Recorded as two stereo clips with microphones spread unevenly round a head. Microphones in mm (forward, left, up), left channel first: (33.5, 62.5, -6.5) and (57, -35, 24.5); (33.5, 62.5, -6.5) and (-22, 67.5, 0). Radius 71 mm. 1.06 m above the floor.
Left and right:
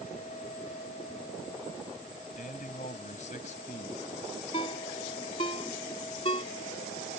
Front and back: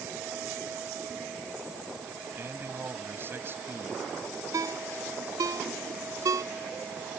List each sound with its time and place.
2.4 s a man speaking: 130° left
4.5 s a ringtone: 165° left